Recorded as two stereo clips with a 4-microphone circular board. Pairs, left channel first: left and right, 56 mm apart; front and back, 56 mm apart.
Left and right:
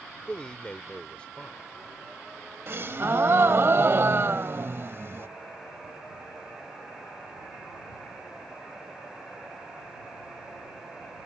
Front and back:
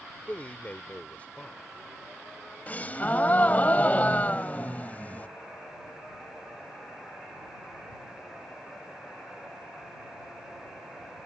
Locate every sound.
0.3 s a man speaking: 35° left
2.7 s a gasp: 55° right